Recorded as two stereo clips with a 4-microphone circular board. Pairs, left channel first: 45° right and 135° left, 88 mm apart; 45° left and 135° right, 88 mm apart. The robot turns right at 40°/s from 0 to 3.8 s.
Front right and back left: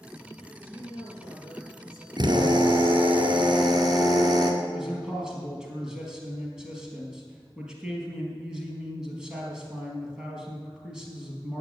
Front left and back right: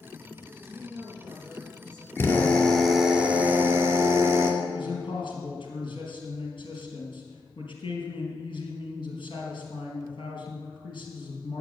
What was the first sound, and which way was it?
A woman speaking, 55° right.